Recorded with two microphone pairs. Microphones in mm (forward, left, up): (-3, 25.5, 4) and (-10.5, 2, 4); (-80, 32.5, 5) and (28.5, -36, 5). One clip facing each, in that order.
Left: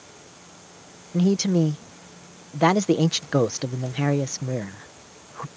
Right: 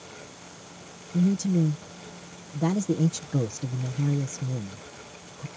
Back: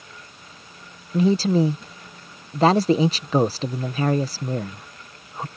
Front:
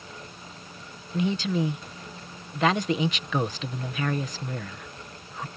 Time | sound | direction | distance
1.1 | a man speaking | 95° left | ?